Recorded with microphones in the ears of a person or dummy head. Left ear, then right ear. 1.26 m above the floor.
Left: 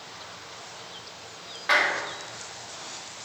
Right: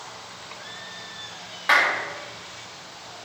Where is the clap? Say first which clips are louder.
Right 3 dB; 15° right (ahead or behind), 2.0 m.